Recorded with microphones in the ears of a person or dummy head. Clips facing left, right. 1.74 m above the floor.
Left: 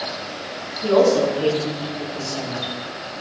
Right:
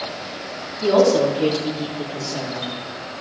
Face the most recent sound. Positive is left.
turn(degrees=-10)  # may be behind; listen again after turning